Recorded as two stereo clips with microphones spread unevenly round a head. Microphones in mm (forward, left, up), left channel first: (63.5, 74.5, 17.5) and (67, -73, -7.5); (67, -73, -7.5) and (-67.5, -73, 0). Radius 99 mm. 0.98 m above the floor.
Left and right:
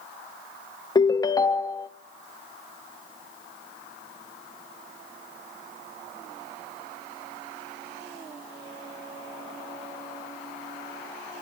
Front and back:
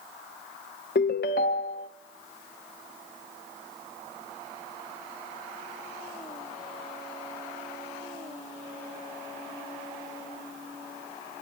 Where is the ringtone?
30° left, 0.5 m.